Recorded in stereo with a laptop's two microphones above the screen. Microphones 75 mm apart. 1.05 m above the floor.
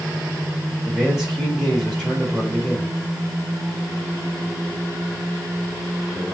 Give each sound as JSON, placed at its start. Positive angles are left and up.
{"t": 0.8, "sound": "a man speaking", "side_deg": -5, "distance_m": 2.5}